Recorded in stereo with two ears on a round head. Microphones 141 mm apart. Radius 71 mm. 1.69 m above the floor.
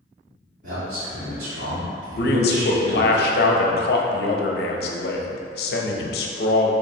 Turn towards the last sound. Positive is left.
turn(degrees=70)  # may be behind; listen again after turning